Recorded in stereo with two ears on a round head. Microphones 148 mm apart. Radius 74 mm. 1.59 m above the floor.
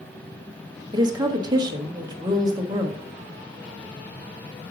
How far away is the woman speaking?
About 1.0 m.